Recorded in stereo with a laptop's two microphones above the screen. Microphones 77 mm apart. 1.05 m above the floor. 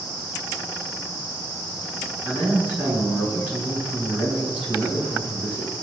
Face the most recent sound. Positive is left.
turn(degrees=-20)  # may be behind; listen again after turning